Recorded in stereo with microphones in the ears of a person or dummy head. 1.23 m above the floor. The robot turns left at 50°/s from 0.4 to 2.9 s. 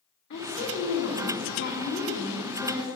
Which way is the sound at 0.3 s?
115° left.